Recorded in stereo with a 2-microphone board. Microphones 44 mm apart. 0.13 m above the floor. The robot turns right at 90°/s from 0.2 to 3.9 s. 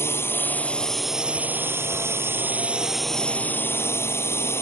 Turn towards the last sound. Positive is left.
turn(degrees=80)